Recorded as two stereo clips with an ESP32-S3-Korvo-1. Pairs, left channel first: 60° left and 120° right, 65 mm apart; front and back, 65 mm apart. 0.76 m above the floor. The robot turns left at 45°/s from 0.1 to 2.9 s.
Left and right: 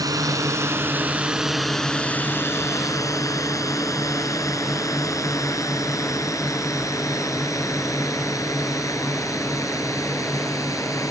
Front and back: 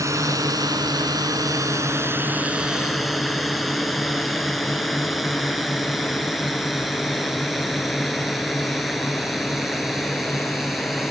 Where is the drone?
145° right; by 11.1 s 90° left.